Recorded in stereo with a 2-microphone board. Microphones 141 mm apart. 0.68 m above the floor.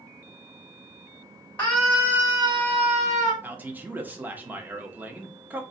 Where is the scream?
15° left (ahead or behind), 0.8 m; by 3.3 s 60° right (ahead or behind), 1.2 m.